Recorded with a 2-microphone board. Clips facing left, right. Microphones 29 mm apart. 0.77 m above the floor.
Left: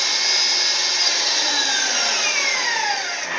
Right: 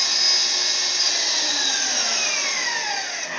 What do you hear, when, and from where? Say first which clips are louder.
0.0 s an engine running: left 1 dB; 65° left (ahead or behind), 2.5 m